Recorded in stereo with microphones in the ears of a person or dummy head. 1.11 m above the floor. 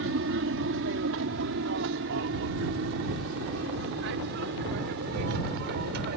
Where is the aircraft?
60° right (ahead or behind).